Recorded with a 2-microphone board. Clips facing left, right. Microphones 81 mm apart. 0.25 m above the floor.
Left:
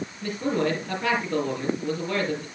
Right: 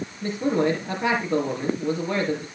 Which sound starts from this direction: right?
A man speaking, at 0.2 s.